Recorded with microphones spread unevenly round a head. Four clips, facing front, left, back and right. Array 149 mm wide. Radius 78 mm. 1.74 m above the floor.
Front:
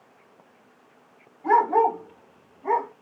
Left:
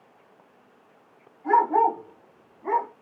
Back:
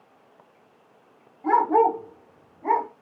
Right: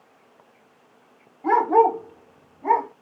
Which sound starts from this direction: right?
A dog barking, at 1.4 s.